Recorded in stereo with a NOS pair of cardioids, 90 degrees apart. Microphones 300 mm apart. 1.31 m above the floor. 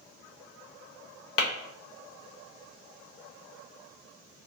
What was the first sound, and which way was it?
Tapping, 50° left.